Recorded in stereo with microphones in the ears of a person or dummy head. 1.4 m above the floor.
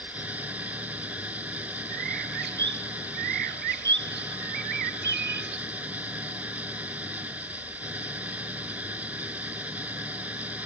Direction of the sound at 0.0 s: 10° right (ahead or behind).